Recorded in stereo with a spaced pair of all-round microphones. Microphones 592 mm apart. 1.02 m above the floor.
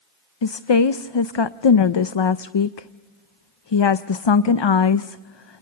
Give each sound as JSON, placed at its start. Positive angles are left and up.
{"t": 0.4, "sound": "a woman speaking", "side_deg": 50, "distance_m": 0.5}